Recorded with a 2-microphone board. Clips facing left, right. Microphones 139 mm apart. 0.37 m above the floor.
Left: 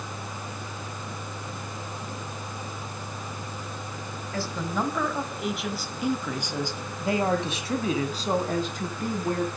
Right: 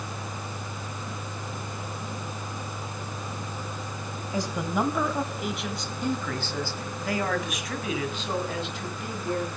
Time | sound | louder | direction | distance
4.3 | a man speaking | right 2 dB | 15° right (ahead or behind) | 2 m